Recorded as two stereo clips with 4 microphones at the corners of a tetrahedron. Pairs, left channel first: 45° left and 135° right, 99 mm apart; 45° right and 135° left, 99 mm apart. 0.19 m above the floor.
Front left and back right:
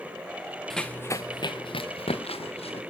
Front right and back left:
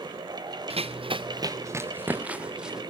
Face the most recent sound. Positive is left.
turn(degrees=50)